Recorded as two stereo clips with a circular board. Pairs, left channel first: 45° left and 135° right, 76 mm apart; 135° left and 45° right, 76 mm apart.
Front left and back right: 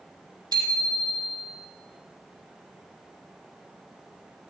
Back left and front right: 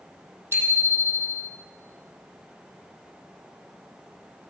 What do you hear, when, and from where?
0.5 s a bicycle bell: 105° right, 5 m